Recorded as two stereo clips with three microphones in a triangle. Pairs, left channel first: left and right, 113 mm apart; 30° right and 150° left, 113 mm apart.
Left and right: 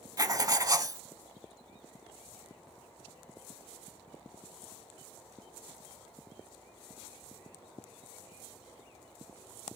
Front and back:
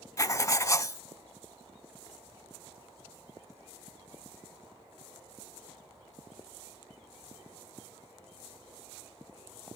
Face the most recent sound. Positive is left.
turn(degrees=-65)